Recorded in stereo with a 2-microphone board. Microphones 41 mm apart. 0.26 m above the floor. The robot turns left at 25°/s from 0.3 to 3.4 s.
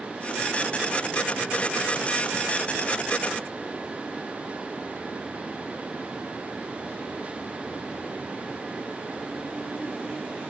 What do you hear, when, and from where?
Only background noise.